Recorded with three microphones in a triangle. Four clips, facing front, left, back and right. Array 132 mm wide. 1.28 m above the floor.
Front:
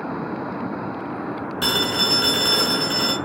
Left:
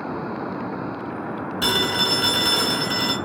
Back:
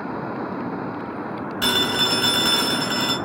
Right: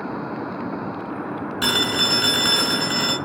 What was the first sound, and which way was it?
A phone ringing, 105° right.